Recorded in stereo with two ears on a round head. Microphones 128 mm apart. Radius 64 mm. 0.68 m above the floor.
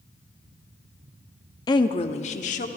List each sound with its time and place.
1.7 s a woman speaking: 30° left (ahead or behind), 0.7 m; by 2.7 s 60° left (ahead or behind), 1.3 m